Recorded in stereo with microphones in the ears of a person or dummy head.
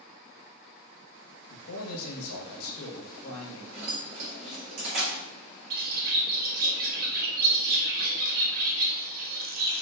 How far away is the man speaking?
About 1.0 m.